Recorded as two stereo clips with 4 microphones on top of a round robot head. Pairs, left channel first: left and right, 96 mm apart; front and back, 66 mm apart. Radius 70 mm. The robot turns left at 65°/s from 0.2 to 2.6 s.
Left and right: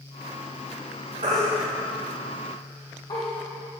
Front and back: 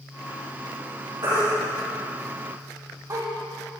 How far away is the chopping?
No chopping in this recording.